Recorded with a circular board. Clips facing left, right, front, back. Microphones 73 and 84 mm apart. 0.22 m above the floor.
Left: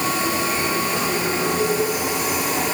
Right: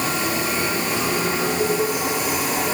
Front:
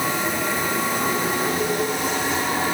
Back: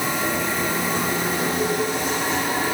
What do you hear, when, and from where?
Only background noise.